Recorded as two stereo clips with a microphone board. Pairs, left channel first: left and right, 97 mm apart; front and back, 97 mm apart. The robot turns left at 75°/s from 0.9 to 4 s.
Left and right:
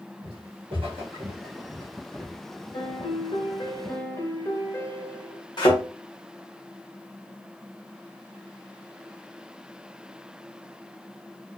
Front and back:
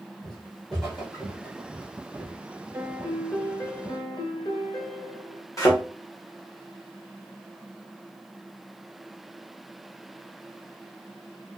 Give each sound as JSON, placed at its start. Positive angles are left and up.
{"t": 0.2, "sound": "footsteps", "azimuth_deg": -85, "distance_m": 2.5}
{"t": 2.7, "sound": "a piano", "azimuth_deg": 125, "distance_m": 0.9}
{"t": 5.6, "sound": "a thud", "azimuth_deg": 55, "distance_m": 1.4}